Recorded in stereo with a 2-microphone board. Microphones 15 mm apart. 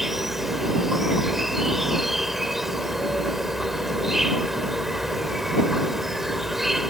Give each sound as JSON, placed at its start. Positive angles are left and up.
{"t": 0.0, "sound": "an insect", "side_deg": -15}